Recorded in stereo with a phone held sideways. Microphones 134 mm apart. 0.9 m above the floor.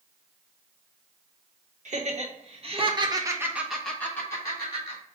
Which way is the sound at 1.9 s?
65° right (ahead or behind).